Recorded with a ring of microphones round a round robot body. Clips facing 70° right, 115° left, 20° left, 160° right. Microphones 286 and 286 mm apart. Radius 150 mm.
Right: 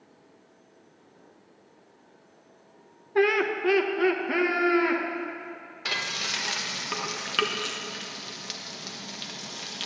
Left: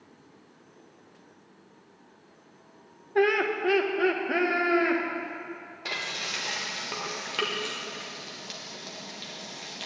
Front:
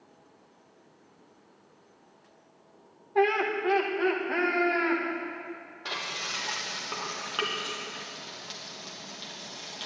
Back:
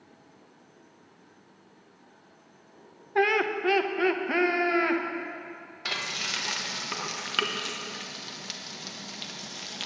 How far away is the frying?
About 1.3 m.